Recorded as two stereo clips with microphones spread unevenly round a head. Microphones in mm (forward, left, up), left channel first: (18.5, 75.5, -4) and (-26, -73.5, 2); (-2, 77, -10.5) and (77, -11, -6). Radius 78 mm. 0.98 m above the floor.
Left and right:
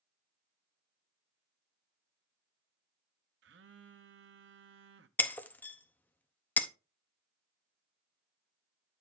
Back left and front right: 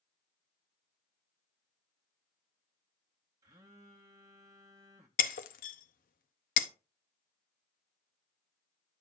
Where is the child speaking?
I don't hear a child speaking.